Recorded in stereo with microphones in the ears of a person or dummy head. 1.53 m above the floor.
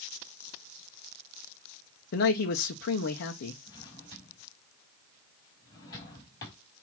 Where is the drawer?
20° left (ahead or behind), 3.5 m.